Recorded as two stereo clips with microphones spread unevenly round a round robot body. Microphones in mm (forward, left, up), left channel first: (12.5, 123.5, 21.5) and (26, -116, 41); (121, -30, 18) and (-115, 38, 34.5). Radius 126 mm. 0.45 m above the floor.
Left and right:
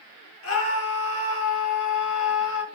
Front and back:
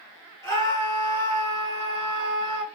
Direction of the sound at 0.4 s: 60° left.